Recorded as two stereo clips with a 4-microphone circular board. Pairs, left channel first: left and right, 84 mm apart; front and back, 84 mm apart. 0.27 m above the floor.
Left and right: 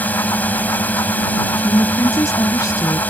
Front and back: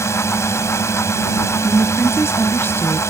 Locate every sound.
0.0 s a drone: 30° left
1.6 s a woman speaking: 55° left